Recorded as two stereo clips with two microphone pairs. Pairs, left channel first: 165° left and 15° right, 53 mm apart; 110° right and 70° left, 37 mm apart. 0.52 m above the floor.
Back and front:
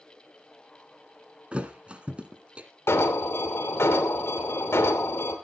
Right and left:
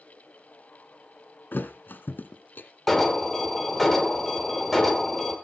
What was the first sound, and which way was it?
A thud, 80° right.